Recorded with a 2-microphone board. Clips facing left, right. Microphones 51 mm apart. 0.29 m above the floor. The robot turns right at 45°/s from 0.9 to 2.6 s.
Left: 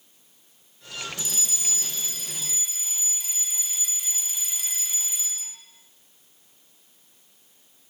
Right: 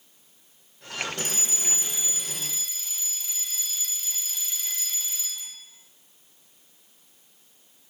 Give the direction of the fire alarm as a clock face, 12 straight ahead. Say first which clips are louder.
Right 2 dB; 2 o'clock.